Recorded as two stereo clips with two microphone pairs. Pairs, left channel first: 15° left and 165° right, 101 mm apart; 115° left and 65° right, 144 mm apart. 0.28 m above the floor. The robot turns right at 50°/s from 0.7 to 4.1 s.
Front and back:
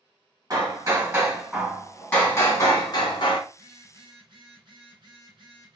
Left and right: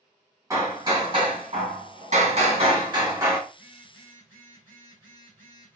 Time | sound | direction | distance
0.5 | hammering | 125° right | 1.3 m
3.5 | a phone buzzing | 155° left | 1.6 m